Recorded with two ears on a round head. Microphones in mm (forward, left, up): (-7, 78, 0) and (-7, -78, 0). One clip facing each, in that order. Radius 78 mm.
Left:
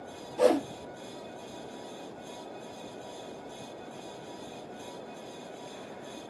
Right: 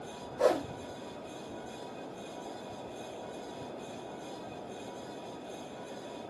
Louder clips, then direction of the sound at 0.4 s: Left 4 dB; 80° left.